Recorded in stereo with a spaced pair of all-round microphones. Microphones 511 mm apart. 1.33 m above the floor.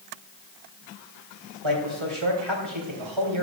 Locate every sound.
1.6 s a man speaking: 70° right (ahead or behind), 3.5 m